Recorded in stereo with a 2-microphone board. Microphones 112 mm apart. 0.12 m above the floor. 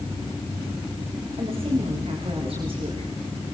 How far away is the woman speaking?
About 9.5 m.